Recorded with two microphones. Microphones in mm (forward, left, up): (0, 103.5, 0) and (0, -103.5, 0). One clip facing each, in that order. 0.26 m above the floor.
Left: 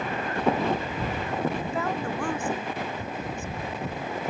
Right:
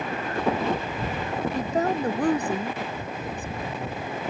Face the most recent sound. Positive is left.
turn(degrees=-35)  # may be behind; listen again after turning